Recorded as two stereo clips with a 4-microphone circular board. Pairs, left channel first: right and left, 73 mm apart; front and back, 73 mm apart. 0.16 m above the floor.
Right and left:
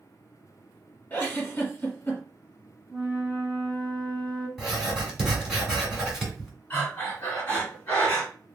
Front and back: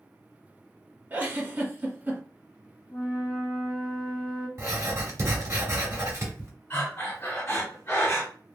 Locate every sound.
1.1 s a giggle: 140° right, 1.3 m
2.9 s a flute: straight ahead, 1.7 m
4.6 s writing: 170° left, 1.7 m
6.7 s breathing: 35° right, 1.8 m